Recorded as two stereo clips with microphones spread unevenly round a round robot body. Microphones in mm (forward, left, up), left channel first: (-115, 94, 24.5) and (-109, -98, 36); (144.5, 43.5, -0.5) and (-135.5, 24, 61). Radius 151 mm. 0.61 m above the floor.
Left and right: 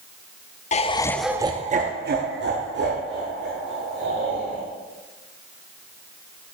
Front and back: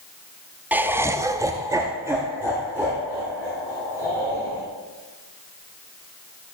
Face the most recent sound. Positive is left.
turn(degrees=-90)